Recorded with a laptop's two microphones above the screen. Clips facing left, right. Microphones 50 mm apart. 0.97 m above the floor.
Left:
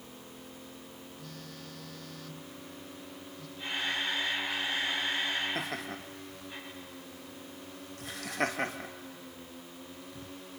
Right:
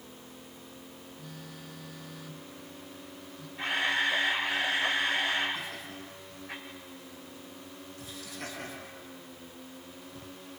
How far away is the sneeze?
No sneeze in this recording.